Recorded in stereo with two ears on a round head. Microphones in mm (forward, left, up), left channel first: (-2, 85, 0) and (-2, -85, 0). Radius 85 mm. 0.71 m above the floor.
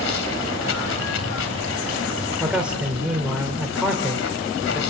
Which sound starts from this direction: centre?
A man speaking, at 2.4 s.